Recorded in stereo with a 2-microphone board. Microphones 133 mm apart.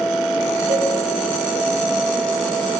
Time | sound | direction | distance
0.7 | a cowbell | 50° right (ahead or behind) | 7.5 m